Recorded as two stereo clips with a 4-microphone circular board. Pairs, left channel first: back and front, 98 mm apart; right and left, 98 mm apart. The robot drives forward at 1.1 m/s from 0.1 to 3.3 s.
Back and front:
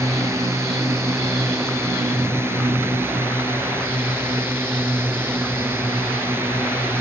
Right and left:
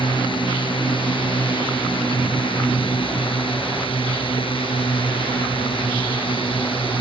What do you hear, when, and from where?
0.0 s a drone: 60° right; by 7.0 s 65° right